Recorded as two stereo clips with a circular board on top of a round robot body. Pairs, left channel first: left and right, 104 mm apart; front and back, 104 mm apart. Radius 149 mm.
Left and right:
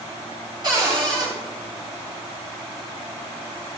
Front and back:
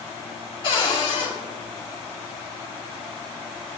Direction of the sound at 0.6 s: 40° right.